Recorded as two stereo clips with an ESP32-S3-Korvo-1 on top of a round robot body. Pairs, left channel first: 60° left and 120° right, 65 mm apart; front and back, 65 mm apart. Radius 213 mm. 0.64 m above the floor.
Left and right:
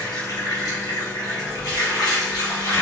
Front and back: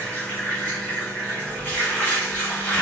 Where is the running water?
70° left, 1.4 m.